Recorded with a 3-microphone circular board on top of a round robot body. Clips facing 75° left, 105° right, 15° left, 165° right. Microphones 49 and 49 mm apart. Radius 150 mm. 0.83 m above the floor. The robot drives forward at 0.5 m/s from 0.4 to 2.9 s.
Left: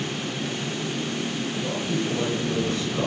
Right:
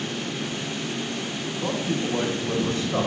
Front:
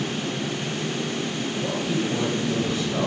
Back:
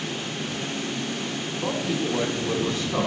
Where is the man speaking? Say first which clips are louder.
Right 3 dB, back 1 dB; 150° right, 2.5 m; by 3.1 s 155° right, 3 m.